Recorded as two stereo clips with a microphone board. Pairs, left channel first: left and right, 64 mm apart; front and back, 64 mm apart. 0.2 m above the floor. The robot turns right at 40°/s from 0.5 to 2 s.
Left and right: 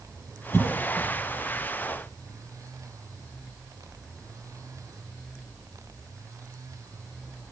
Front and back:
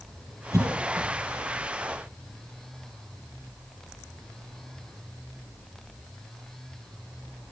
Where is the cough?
145° left, 6 m; by 1.1 s 170° left, 6 m.